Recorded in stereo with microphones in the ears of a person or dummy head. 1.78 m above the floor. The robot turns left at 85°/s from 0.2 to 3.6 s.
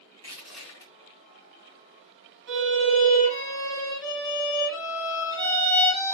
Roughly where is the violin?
Right.